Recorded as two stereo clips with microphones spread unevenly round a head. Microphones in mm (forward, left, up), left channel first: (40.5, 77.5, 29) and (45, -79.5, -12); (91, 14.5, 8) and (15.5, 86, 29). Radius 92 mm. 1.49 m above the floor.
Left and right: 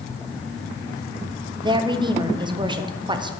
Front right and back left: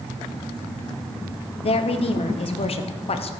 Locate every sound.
1.6 s a woman speaking: 35° right, 0.8 m